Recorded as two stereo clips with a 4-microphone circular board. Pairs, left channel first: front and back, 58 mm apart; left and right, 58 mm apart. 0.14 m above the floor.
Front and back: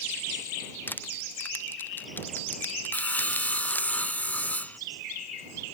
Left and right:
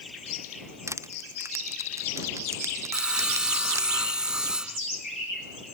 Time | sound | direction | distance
0.9 | crushing | 60° right | ?
2.9 | sawing | 30° right | ?